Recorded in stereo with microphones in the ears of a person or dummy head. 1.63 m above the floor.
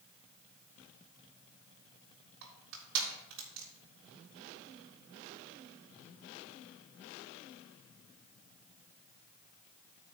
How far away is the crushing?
About 3.5 m.